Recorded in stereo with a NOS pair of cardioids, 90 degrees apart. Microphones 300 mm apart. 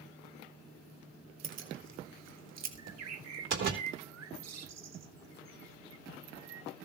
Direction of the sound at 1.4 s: 65° right.